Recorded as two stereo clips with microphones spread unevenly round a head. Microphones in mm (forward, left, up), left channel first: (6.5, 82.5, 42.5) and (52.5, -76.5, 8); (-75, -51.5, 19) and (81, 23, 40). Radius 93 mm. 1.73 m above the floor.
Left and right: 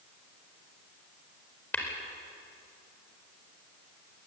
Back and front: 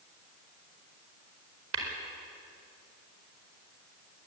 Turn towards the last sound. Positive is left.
turn(degrees=30)